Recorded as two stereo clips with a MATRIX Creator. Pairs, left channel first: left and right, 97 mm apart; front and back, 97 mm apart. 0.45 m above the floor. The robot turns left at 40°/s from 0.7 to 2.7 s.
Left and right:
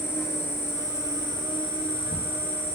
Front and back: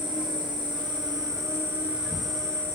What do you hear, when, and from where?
0.0 s an insect: 150° left, 1.3 m; by 2.8 s 70° left, 1.3 m